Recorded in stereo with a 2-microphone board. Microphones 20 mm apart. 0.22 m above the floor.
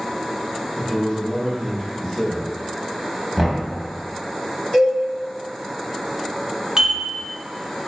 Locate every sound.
0.8 s a man speaking: 25° left (ahead or behind), 1.9 m
3.4 s knocking: 10° right (ahead or behind), 0.8 m
4.7 s a cowbell: 40° left (ahead or behind), 1.5 m
6.8 s dishes clattering: 40° right (ahead or behind), 1.1 m